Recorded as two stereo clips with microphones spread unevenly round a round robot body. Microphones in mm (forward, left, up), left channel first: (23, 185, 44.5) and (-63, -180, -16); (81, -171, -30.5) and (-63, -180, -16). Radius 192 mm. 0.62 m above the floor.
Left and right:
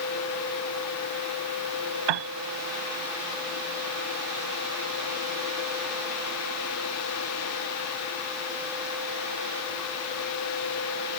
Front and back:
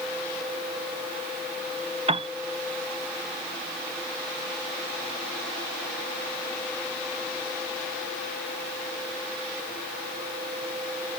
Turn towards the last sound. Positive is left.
turn(degrees=-130)